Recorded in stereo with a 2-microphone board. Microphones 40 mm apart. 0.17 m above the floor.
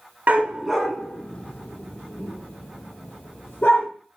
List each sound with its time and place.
0.3 s a dog barking: 40° right (ahead or behind), 0.7 m; by 3.9 s 60° left (ahead or behind), 3 m